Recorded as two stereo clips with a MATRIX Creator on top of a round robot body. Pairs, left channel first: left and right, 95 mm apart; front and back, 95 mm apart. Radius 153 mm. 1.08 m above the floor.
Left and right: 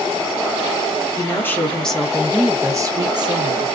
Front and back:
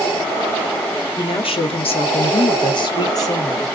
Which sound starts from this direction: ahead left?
A woman speaking, at 1.2 s.